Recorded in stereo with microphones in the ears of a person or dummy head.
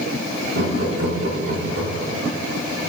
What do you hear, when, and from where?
0.5 s laughter: 85° right, 3 m; by 2.2 s 70° right (ahead or behind), 2.5 m